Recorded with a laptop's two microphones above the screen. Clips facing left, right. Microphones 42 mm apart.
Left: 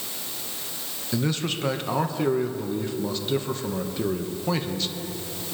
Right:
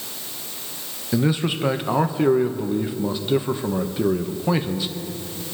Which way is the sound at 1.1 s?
15° right (ahead or behind).